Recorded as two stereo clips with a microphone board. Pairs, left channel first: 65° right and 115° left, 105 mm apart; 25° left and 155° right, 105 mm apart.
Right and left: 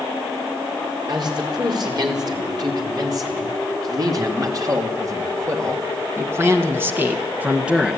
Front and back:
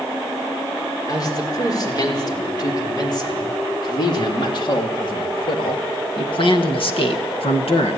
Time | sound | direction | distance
1.1 | a man speaking | 70° left | 5 m